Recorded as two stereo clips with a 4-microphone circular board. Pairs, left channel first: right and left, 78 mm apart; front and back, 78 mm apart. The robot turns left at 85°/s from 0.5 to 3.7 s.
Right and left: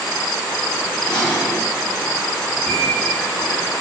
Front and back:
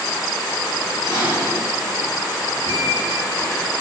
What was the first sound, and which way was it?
Dishes clattering, 160° right.